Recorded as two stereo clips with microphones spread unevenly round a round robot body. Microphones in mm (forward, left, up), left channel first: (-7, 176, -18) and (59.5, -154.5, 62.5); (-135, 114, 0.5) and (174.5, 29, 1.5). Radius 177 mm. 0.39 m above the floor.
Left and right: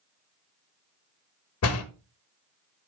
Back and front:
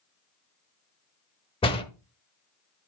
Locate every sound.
1.6 s a door slam: 95° left, 1.0 m